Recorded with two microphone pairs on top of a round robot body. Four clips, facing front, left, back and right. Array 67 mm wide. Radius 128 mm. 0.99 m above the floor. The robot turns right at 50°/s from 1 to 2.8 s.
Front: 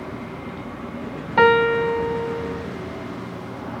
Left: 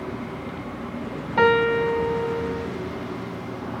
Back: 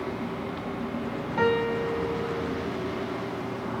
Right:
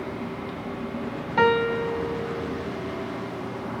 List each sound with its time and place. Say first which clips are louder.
1.4 s a piano: left 3 dB, front 10 dB; straight ahead, 0.7 m; by 2.7 s 65° left, 0.7 m